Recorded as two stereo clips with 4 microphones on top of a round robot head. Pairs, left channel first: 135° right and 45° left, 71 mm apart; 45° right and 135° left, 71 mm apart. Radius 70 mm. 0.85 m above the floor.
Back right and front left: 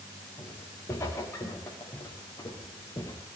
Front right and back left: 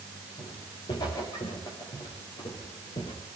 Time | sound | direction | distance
0.4 | footsteps | 80° right | 8.5 m